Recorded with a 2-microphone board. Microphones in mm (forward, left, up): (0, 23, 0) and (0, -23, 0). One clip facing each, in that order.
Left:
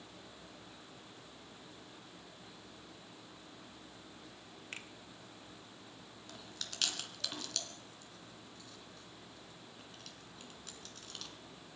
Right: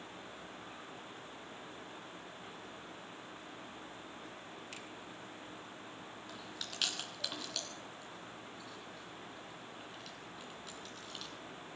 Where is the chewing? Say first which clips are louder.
Even; 10° right (ahead or behind), 2.5 m.